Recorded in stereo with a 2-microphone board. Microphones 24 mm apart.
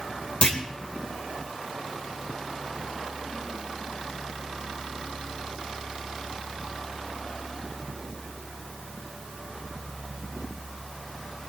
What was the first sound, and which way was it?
A clunk, 55° left (ahead or behind).